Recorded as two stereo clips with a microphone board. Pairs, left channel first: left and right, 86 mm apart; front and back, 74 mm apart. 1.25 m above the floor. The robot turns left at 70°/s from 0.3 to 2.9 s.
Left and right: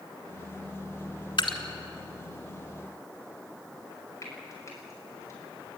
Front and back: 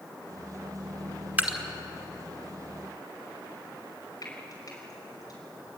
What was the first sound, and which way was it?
Dripping, 110° left.